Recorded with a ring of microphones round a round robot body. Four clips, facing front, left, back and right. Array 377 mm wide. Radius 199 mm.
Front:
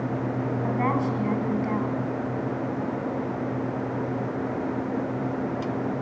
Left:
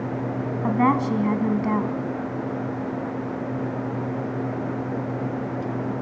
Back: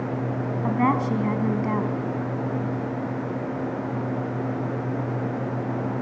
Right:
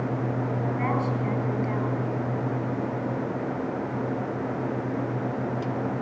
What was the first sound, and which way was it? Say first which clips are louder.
A woman speaking: left 9 dB, back 4 dB; 115° left.